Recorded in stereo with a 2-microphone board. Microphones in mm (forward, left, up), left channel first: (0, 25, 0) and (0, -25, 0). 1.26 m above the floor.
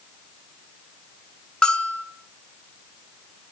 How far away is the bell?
About 1.1 m.